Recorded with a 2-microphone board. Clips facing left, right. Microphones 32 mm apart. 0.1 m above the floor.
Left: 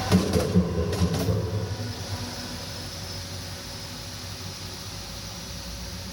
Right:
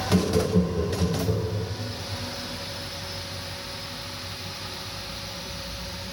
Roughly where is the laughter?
Left.